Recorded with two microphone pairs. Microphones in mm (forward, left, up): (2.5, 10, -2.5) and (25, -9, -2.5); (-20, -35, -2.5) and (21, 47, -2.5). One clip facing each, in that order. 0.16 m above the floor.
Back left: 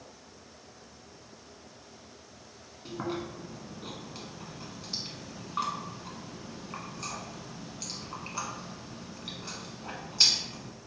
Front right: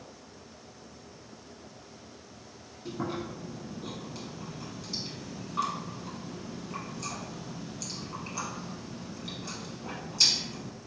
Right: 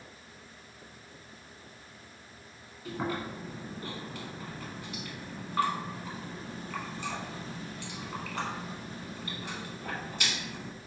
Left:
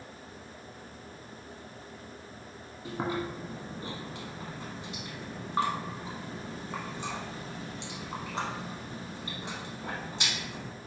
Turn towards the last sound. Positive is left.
turn(degrees=105)